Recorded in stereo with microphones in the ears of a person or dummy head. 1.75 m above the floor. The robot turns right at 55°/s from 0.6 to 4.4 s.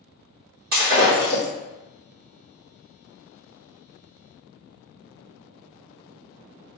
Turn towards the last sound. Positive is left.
turn(degrees=140)